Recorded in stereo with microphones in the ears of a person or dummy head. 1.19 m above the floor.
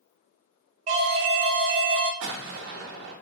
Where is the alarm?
40° right (ahead or behind), 0.5 m.